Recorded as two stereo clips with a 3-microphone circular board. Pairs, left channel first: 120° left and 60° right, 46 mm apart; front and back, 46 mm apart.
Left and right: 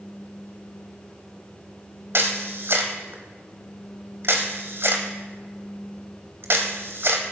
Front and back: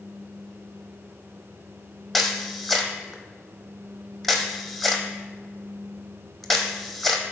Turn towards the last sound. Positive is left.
turn(degrees=-85)